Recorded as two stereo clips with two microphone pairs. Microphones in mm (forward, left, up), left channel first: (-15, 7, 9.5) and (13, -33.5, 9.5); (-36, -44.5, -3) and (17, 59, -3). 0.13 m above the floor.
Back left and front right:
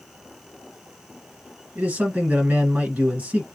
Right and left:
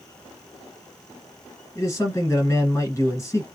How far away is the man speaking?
About 1.9 m.